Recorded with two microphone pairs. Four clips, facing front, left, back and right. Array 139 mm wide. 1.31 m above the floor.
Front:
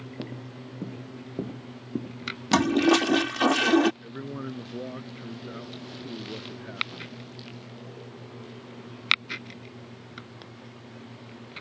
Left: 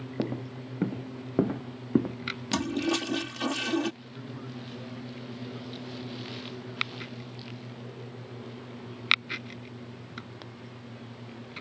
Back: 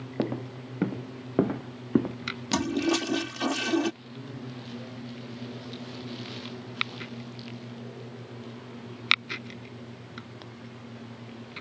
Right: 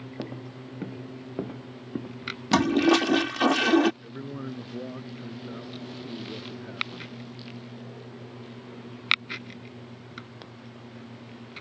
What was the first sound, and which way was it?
Footsteps, 175° left.